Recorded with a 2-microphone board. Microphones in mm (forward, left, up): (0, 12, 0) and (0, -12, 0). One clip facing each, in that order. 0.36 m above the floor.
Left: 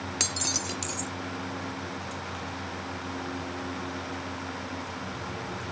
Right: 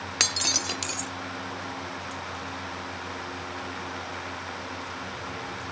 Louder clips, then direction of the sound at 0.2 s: Right 5 dB; 25° right (ahead or behind).